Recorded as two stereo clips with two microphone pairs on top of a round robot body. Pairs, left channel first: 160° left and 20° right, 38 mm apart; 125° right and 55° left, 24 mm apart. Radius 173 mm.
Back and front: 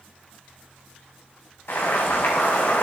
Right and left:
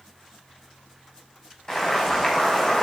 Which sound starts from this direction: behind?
Boiling, at 1.7 s.